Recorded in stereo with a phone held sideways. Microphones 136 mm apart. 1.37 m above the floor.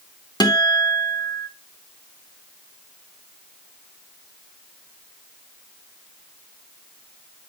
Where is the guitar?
30° left (ahead or behind), 1.0 m.